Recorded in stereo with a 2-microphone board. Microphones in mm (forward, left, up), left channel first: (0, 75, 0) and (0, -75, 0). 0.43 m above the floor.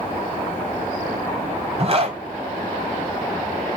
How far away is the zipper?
About 2.5 m.